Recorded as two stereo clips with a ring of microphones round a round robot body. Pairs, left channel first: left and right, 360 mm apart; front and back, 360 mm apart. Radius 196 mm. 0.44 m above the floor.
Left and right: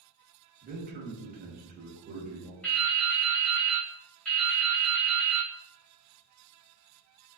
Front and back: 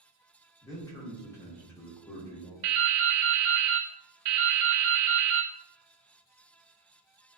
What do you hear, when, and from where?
0.6 s a man speaking: 70° right, 0.9 m
2.6 s dripping: 175° left, 0.6 m